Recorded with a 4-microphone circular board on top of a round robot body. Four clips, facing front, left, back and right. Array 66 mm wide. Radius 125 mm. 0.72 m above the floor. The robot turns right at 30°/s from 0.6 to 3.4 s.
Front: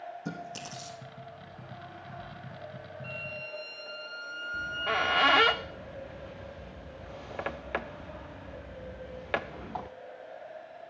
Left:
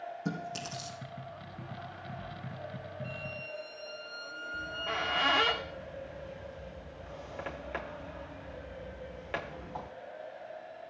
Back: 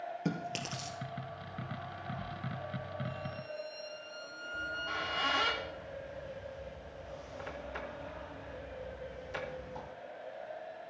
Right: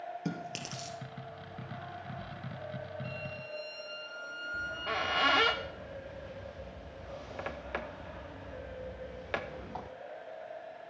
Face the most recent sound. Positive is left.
turn(degrees=-5)